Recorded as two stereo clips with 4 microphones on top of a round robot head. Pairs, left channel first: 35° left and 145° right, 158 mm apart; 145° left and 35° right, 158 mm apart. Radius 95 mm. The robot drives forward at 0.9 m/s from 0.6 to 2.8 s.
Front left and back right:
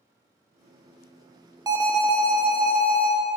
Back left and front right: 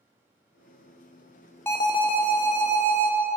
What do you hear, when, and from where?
1.7 s an alarm: 165° right, 0.7 m; by 3.1 s 175° right, 1.4 m